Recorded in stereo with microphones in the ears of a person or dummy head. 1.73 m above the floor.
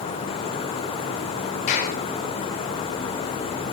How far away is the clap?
About 5 m.